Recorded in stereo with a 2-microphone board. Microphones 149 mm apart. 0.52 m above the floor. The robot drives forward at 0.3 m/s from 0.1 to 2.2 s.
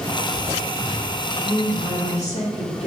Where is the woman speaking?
45° left (ahead or behind), 1.6 m.